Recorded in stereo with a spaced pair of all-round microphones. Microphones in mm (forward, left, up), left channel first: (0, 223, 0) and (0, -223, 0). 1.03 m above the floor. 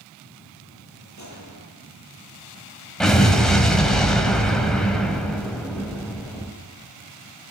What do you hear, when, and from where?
1.2 s a gunshot: 40° left (ahead or behind), 9 m
3.0 s an explosion: centre (ahead or behind), 3.5 m